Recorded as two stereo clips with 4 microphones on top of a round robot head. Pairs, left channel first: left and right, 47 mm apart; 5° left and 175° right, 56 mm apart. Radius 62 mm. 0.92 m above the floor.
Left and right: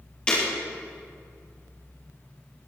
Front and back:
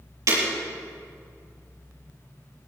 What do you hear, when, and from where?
0.3 s breaking glass: 165° left, 7 m